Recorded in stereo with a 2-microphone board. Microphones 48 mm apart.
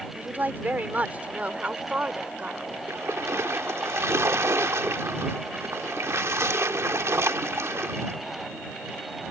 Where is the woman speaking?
40° right (ahead or behind); by 2.8 s 25° right (ahead or behind).